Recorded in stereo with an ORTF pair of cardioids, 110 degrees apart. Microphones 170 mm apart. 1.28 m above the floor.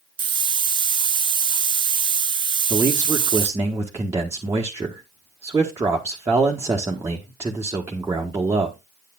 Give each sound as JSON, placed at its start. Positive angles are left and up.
{"t": 0.2, "sound": "a hiss", "azimuth_deg": -25, "distance_m": 0.6}
{"t": 2.7, "sound": "a man speaking", "azimuth_deg": -15, "distance_m": 1.3}